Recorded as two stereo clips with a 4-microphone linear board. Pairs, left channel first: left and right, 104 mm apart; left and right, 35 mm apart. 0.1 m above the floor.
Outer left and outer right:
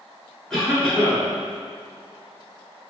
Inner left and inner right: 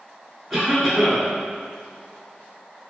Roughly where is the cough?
Centre.